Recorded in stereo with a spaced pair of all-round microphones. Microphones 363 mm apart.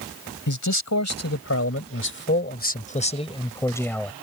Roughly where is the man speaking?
Left.